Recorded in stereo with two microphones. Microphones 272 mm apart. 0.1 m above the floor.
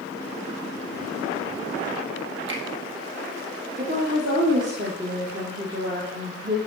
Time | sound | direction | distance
2.5 | a finger snap | 45° right (ahead or behind) | 2.5 m
3.8 | a woman speaking | 40° right (ahead or behind) | 2.5 m